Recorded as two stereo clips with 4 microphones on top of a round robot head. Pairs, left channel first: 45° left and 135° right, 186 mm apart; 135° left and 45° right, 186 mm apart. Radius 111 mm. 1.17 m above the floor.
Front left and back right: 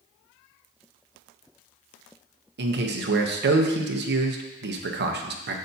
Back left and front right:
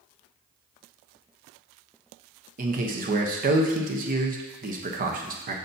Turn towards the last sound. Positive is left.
turn(degrees=-100)